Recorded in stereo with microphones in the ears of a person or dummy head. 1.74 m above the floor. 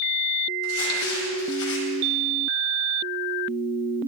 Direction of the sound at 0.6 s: 70° left (ahead or behind).